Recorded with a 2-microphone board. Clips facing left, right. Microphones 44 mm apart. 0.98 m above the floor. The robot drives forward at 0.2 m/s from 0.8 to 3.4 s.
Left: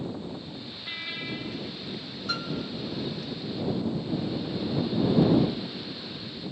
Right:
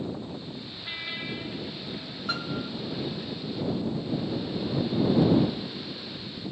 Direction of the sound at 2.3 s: 25° right (ahead or behind).